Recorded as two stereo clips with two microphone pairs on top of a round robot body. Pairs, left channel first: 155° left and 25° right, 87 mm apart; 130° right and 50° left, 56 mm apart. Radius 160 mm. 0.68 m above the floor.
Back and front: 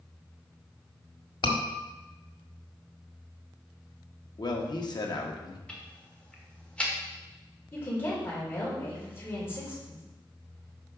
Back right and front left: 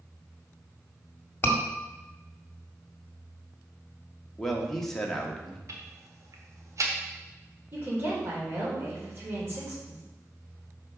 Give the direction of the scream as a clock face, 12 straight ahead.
6 o'clock.